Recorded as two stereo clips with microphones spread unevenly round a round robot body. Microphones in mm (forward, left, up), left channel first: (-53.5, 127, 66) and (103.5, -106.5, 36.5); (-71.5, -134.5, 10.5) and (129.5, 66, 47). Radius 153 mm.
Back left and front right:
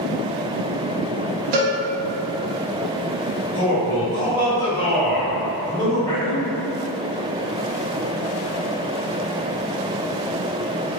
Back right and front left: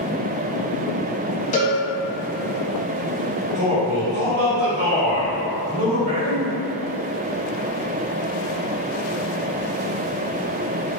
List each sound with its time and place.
1.5 s a cowbell: 70° right, 0.5 m
3.5 s a man speaking: 50° left, 1.8 m